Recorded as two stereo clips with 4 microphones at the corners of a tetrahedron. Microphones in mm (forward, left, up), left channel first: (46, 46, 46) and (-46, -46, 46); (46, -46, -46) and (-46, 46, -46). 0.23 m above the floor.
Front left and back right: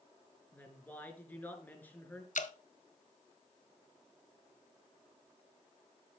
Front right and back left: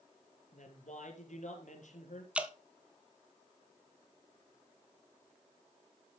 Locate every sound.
0.5 s a woman speaking: 30° right, 4 m
2.4 s dripping: 55° left, 1.1 m